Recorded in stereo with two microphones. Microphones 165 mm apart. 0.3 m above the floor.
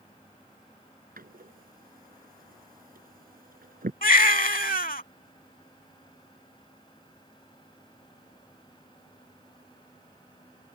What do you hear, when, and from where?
1.2 s a door slam: 70° right (ahead or behind)
4.0 s a baby crying: 65° left (ahead or behind)